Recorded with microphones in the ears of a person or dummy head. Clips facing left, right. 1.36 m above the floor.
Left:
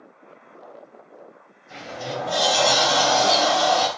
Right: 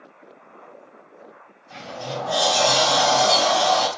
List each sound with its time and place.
1.7 s a sliding door: 25° left (ahead or behind), 1.0 m